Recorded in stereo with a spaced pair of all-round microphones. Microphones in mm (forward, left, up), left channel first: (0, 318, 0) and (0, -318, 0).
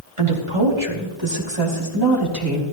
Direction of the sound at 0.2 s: 55° right (ahead or behind).